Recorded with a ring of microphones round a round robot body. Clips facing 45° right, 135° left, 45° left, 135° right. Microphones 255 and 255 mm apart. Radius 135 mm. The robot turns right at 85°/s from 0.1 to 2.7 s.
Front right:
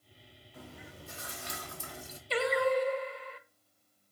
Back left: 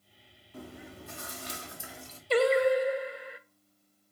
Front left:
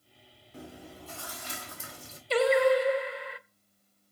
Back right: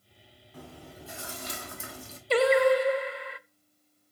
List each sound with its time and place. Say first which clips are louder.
0.5 s chewing: back left 5 dB, front left 1 dB; 105° left, 1.3 m; by 2.2 s 115° right, 1.3 m
2.3 s singing: back left 5 dB, back right 1 dB; straight behind, 0.5 m; by 3.4 s 145° right, 0.5 m